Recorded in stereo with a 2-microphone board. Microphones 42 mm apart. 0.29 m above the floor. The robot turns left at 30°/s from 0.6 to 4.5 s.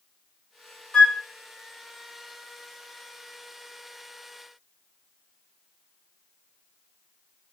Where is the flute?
20° left (ahead or behind), 0.7 m.